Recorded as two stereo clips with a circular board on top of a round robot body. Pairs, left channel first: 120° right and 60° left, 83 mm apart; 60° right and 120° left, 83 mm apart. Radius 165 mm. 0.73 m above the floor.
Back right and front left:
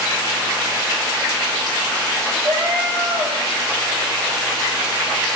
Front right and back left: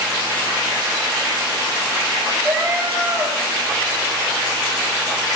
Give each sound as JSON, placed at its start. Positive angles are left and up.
{"t": 2.4, "sound": "a cat meowing", "azimuth_deg": 55, "distance_m": 2.5}